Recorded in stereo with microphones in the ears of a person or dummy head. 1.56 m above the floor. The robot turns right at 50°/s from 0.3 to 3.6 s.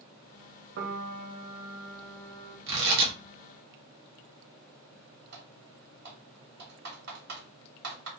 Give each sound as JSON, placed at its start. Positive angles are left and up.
{"t": 0.8, "sound": "a piano", "azimuth_deg": -60, "distance_m": 0.5}
{"t": 2.7, "sound": "tearing paper", "side_deg": -65, "distance_m": 1.0}
{"t": 5.3, "sound": "typing on a keyboard", "side_deg": -60, "distance_m": 1.3}